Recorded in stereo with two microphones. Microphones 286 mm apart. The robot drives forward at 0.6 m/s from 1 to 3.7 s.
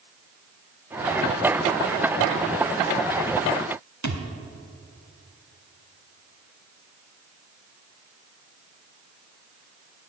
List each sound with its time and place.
4.0 s a thud: 75° right (ahead or behind), 1.2 m